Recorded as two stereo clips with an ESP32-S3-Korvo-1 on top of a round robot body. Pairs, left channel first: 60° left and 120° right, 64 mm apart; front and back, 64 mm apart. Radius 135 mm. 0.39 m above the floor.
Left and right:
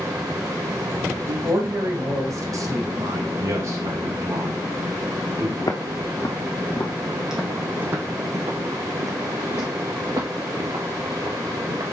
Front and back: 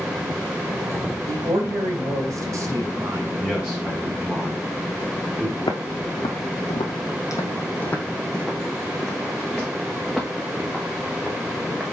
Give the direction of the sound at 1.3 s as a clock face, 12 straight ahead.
6 o'clock.